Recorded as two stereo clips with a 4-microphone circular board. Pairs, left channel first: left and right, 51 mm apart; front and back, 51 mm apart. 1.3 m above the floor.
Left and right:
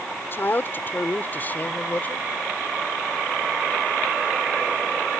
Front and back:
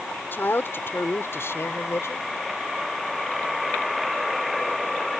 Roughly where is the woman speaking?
Ahead left.